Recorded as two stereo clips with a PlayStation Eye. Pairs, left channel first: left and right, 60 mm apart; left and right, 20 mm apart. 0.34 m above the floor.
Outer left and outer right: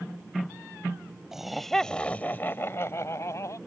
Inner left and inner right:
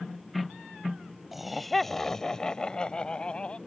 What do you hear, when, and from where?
1.3 s laughter: 5° right (ahead or behind); by 3.6 s 60° left (ahead or behind)